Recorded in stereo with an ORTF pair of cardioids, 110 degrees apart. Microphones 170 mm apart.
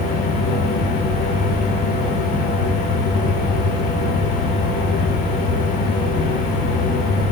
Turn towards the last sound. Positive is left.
turn(degrees=65)